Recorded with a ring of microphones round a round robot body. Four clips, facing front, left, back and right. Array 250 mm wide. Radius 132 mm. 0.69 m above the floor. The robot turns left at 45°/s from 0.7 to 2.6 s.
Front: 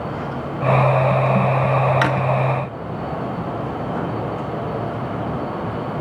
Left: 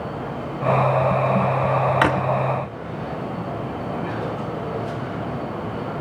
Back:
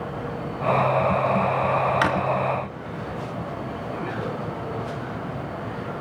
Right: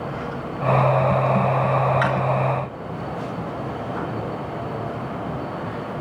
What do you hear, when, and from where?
2.0 s a drawer: 80° left, 0.7 m; by 2.2 s 70° left, 0.7 m